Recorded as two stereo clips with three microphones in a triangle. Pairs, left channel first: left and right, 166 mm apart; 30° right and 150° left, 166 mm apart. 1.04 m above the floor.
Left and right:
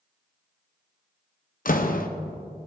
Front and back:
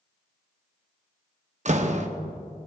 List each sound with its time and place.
1.6 s a door slam: 115° left, 0.8 m